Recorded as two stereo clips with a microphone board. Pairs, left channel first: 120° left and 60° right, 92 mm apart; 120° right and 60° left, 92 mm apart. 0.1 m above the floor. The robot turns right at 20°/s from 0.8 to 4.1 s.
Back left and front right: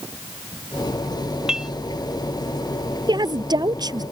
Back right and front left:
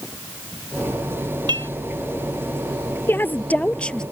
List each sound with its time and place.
1.5 s dishes clattering: 20° left; by 1.7 s 25° left
3.1 s a woman speaking: 60° right; by 4.0 s 40° right